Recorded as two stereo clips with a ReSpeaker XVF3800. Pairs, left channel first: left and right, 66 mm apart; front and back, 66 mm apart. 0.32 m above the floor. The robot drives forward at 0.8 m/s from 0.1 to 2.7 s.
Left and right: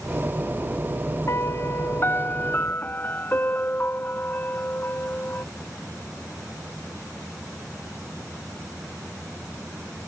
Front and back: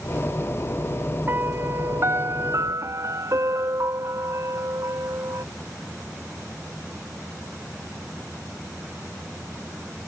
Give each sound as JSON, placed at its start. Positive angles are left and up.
{"t": 1.3, "sound": "a piano", "azimuth_deg": 130}